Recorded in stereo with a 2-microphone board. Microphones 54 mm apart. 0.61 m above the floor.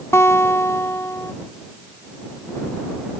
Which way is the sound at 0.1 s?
60° left (ahead or behind).